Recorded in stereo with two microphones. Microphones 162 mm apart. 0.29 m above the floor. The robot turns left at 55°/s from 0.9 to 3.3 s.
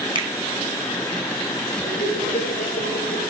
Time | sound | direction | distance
0.1 | a finger snap | 30° right (ahead or behind) | 1.3 m
1.8 | laughter | 135° left | 8 m